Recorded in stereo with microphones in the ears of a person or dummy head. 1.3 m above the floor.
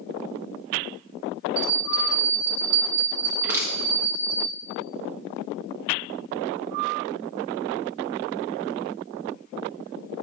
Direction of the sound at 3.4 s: 15° right (ahead or behind).